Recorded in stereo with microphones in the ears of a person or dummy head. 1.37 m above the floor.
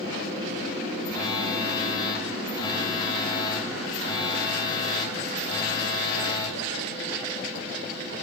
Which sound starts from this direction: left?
A phone buzzing, at 1.1 s.